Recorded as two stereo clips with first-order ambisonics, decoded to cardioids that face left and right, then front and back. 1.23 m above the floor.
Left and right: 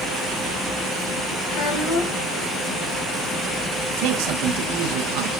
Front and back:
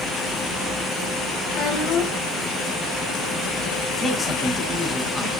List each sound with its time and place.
1.5 s a child speaking: 40° left, 6 m
4.0 s a man speaking: 90° right, 2.0 m